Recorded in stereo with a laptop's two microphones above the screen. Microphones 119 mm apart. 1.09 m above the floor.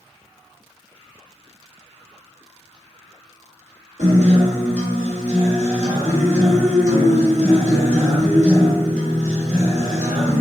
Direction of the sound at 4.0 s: 85° right.